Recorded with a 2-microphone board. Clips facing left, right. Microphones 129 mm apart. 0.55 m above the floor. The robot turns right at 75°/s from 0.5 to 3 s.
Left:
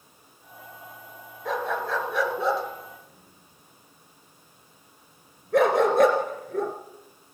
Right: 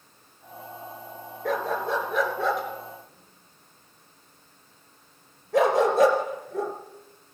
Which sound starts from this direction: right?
A dog barking, at 1.4 s.